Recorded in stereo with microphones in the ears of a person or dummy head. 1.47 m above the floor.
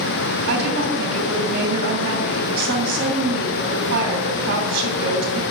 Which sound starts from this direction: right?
A woman speaking, at 0.5 s.